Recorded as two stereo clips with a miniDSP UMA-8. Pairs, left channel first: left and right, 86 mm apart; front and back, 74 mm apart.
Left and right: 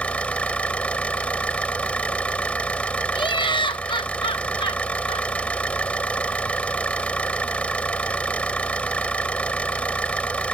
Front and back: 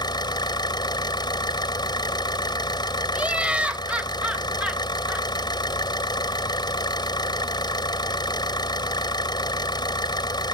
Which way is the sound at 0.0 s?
15° left.